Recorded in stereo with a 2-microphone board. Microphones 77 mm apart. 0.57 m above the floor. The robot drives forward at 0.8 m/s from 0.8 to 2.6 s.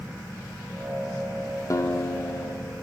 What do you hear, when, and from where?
1.7 s a guitar: 45° left (ahead or behind), 0.8 m; by 2.8 s 30° left (ahead or behind), 1.1 m